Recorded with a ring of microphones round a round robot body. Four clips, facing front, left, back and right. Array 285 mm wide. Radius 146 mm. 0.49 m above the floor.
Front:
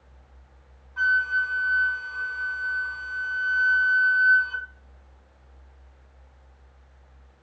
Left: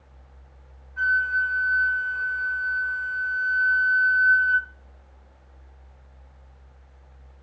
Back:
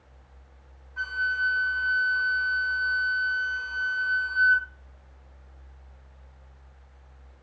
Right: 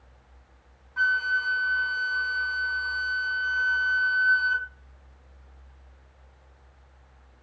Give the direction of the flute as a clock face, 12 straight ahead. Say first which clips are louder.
Left 2 dB, front 5 dB; 2 o'clock.